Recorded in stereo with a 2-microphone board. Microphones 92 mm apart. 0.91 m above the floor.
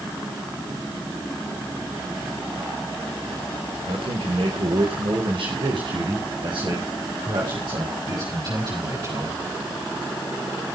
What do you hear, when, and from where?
3.9 s a man speaking: 80° right, 3.5 m; by 9.4 s 45° right (ahead or behind), 7 m